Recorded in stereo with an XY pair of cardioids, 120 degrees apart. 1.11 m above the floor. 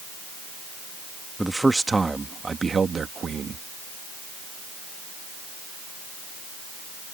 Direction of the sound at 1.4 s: 5° right.